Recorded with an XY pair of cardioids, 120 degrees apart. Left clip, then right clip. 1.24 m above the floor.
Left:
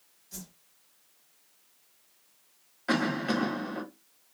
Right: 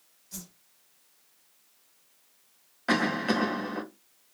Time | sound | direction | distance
0.3 | a whoosh | 10° right | 1.3 m
2.9 | a cough | 25° right | 1.3 m